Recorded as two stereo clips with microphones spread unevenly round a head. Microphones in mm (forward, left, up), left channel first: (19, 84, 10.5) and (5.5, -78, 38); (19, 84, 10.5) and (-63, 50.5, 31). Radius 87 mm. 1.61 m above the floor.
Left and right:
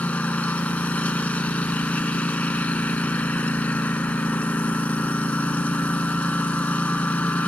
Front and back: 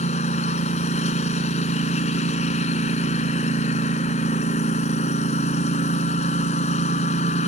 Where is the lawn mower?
Straight ahead.